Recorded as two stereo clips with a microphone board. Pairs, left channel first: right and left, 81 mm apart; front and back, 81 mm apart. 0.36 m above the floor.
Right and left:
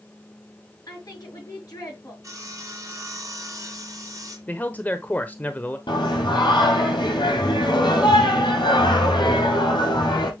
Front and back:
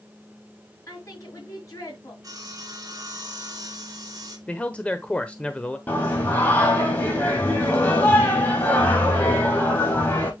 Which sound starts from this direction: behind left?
Sawing, at 2.2 s.